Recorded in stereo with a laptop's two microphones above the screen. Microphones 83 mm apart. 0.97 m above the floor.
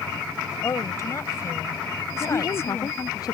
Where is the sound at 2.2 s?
45° left (ahead or behind).